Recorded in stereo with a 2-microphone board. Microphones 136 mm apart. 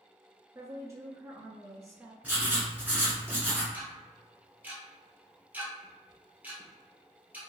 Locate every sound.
0.6 s a woman speaking: 25° right (ahead or behind), 1.1 m
2.2 s writing: 15° right (ahead or behind), 1.5 m
3.7 s ticking: 10° right (ahead or behind), 1.2 m